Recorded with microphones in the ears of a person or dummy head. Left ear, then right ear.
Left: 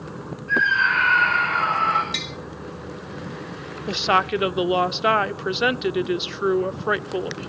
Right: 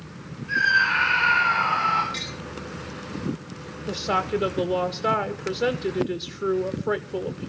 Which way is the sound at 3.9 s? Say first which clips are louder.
Left 5 dB; 40° left (ahead or behind).